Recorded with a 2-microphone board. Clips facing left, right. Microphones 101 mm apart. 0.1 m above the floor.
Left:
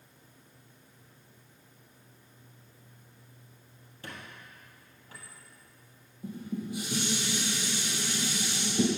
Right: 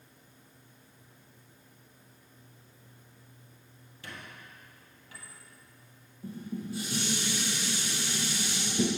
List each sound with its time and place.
4.0 s a squeak: 40° left (ahead or behind), 1.9 m
6.2 s dishes clattering: 15° left (ahead or behind), 2.5 m